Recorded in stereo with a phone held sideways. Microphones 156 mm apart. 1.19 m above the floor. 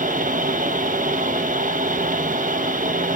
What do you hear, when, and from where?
0.0 s a fan: 55° right (ahead or behind), 0.8 m